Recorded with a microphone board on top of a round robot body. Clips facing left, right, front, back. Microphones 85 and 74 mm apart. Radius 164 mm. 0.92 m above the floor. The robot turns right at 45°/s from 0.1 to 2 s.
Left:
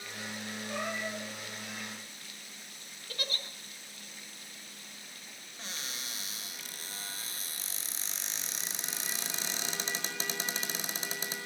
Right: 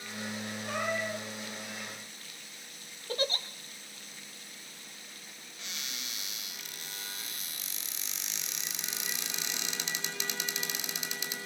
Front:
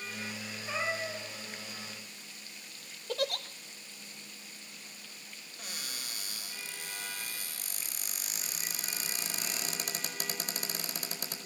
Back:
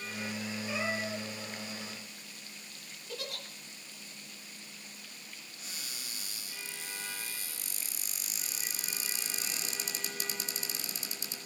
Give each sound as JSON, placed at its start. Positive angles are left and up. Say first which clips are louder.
{"t": 0.7, "sound": "a cat meowing", "louder": "right 4 dB, front 1 dB", "azimuth_deg": -55, "distance_m": 8.5}
{"t": 3.1, "sound": "a giggle", "louder": "right 8 dB, front 9 dB", "azimuth_deg": -30, "distance_m": 1.0}
{"t": 5.6, "sound": "a cupboard door", "louder": "left 2 dB, front 4 dB", "azimuth_deg": 35, "distance_m": 4.5}